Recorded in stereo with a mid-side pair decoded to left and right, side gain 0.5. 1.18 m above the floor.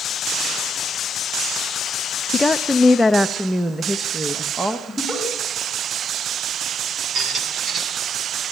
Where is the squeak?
45° right, 3 m.